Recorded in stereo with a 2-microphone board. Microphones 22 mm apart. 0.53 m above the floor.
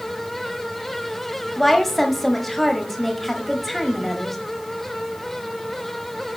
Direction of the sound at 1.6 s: 5° left (ahead or behind).